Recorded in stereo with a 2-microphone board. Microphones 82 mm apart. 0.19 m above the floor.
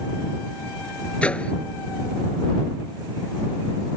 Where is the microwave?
15° left (ahead or behind).